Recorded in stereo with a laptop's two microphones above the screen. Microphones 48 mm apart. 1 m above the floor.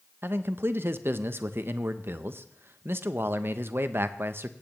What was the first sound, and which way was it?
A man speaking, 50° right (ahead or behind).